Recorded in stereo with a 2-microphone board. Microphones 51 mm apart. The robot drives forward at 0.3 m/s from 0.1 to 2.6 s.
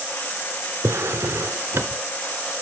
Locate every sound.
0.8 s a drawer: 60° right (ahead or behind), 0.6 m; by 2.0 s 50° right (ahead or behind), 0.7 m